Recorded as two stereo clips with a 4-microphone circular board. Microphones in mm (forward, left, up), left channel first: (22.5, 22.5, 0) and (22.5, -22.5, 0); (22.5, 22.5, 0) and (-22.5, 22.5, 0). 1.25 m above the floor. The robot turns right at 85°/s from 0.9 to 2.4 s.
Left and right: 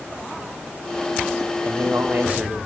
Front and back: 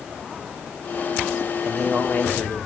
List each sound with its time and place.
1.6 s a man speaking: 95° right, 2.5 m; by 2.6 s 30° right, 2.5 m